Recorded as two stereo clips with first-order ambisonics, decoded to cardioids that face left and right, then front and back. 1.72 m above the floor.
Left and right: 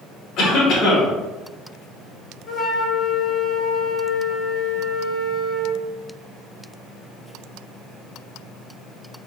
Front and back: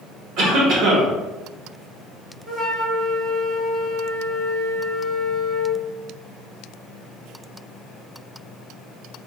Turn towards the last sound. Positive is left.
turn(degrees=150)